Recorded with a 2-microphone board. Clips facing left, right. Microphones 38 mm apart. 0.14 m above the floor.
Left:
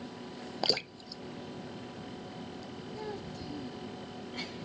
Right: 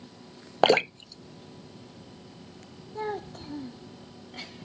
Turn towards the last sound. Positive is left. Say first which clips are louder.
# right 9 dB
turn(degrees=-50)  # may be behind; listen again after turning